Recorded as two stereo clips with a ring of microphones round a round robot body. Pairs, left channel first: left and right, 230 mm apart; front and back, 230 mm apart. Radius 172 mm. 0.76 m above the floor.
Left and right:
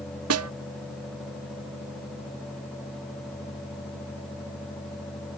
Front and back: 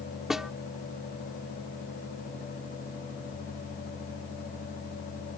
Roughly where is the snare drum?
Right.